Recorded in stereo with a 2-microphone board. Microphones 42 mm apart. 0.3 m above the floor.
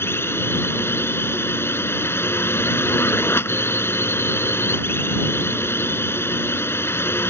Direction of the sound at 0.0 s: 70° left (ahead or behind).